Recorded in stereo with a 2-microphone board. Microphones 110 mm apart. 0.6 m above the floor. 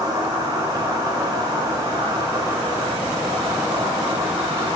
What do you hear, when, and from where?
0.0 s an insect: 35° right (ahead or behind), 1.1 m